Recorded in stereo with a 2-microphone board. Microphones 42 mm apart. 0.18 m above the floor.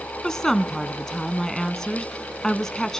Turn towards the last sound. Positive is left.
turn(degrees=10)  # may be behind; listen again after turning